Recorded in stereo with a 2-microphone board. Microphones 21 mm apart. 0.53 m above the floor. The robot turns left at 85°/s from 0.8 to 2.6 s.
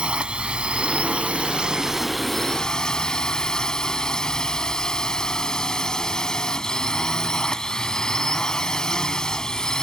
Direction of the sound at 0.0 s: 55° right.